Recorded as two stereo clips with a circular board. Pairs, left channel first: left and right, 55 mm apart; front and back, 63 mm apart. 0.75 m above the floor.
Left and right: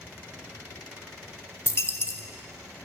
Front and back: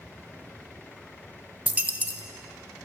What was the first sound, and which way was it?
A dropped coin, 120° left.